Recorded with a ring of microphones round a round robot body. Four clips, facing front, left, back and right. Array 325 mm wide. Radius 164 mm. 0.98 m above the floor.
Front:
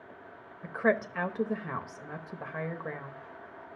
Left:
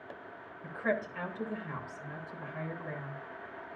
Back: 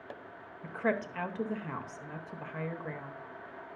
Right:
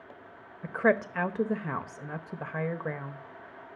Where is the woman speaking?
75° right, 1.0 m.